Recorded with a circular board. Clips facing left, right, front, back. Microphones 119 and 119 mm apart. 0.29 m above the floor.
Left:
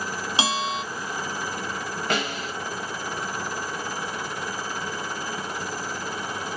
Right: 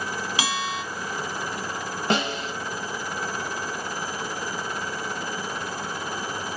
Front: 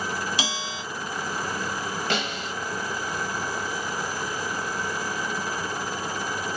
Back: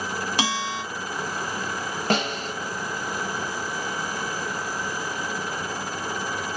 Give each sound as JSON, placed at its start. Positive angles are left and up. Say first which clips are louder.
{"t": 0.4, "sound": "a bell", "louder": "left 4 dB, back 5 dB", "azimuth_deg": 150, "distance_m": 0.6}
{"t": 2.1, "sound": "a snare drum", "louder": "right 4 dB, back 8 dB", "azimuth_deg": -145, "distance_m": 0.5}